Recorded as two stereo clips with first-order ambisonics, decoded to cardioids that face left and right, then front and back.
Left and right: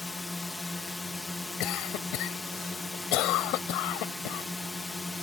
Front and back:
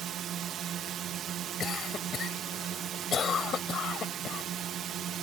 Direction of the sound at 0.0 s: 165° left.